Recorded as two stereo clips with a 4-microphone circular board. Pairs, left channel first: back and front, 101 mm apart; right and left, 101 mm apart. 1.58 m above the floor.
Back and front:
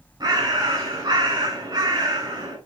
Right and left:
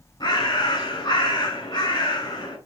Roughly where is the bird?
Ahead right.